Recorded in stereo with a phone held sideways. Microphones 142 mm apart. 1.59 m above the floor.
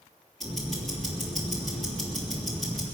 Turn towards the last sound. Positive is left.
turn(degrees=0)  # may be behind; listen again after turning